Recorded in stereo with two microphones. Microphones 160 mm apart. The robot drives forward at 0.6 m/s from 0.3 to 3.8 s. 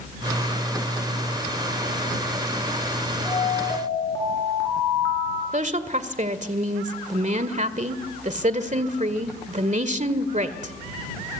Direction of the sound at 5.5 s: 50° right (ahead or behind).